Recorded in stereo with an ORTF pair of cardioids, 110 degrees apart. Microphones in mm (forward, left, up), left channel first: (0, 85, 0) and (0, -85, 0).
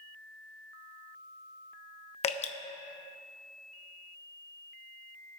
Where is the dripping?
40° left, 0.8 m.